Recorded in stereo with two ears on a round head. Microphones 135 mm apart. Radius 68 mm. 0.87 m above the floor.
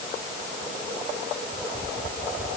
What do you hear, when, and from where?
Only background noise.